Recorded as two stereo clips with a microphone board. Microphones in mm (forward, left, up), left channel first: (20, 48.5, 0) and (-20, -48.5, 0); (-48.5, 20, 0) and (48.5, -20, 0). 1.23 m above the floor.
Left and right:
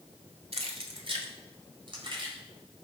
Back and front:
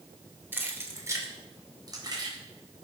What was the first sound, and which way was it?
Keys jangling, 95° right.